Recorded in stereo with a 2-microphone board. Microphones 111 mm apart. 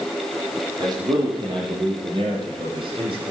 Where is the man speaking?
40° right (ahead or behind), 9.5 m; by 3.2 s 55° right (ahead or behind), 8 m.